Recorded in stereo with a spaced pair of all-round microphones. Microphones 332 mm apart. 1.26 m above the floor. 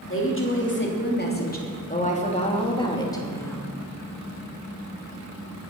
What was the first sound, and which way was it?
A woman speaking, 40° left (ahead or behind).